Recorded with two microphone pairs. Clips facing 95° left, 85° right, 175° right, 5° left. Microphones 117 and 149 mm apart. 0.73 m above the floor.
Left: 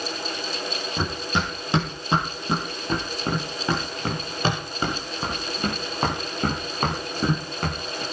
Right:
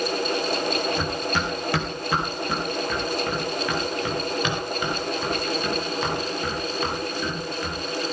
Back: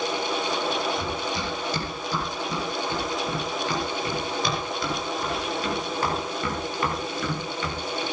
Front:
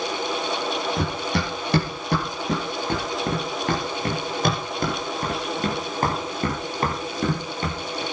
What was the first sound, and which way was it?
Running footsteps, 25° left.